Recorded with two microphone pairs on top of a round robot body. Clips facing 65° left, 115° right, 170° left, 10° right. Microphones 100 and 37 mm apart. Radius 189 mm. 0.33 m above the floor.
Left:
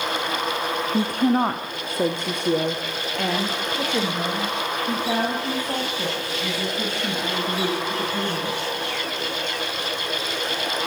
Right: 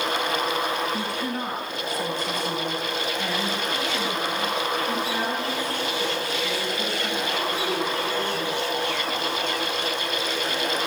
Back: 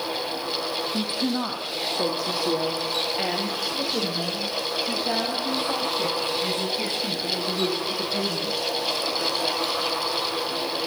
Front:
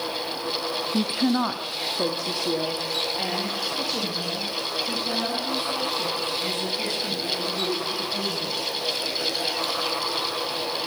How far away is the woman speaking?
About 1.5 m.